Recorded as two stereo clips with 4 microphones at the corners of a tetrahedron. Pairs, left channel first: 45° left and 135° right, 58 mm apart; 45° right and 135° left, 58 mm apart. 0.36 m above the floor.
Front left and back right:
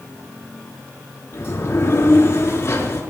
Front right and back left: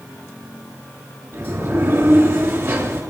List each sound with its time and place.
1.3 s a sliding door: 95° left, 6 m